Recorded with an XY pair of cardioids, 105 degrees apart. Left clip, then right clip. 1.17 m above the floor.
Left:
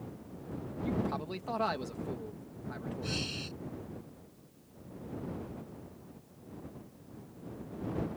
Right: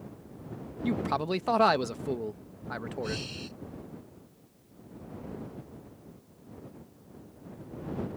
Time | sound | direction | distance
0.8 | a man speaking | 65° right | ?
3.0 | breathing | 10° left | ?